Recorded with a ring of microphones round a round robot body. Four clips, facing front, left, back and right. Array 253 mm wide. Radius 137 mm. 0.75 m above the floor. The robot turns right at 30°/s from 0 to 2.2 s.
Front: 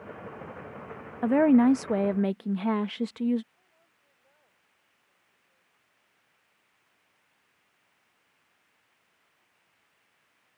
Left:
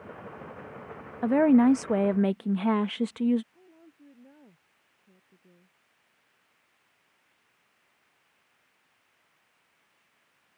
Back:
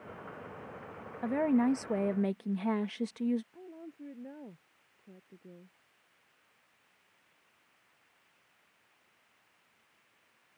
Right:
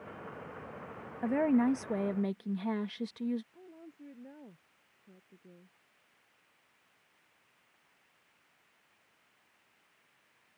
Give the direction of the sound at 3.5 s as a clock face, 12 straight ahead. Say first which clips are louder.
Right 4 dB, back 21 dB; 6 o'clock.